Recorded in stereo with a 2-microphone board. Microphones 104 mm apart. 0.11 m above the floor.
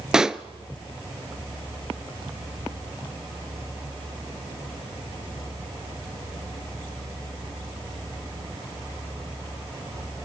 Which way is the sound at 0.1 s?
5° right (ahead or behind).